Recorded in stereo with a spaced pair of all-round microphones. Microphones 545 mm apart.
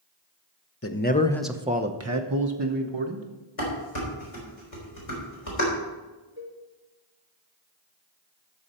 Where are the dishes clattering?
90° left, 3.5 m.